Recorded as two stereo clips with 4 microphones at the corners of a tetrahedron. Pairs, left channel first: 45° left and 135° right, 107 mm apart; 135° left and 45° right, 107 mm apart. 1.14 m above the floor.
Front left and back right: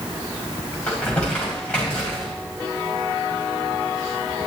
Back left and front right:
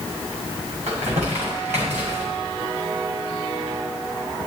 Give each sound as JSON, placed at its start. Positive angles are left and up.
{"t": 0.9, "sound": "crumpling", "azimuth_deg": -35, "distance_m": 5.5}